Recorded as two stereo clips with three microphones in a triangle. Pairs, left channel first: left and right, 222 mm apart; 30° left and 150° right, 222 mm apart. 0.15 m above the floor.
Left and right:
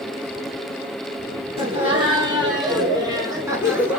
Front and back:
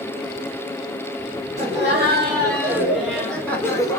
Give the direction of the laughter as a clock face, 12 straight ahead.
4 o'clock.